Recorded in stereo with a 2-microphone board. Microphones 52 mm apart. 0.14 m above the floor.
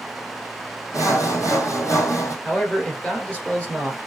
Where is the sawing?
80° left, 1.3 m.